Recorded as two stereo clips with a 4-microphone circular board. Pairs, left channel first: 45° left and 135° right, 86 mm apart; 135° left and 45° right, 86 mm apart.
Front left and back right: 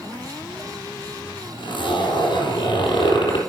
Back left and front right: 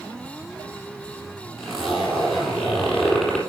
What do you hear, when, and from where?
1.6 s a zipper: 40° left, 4 m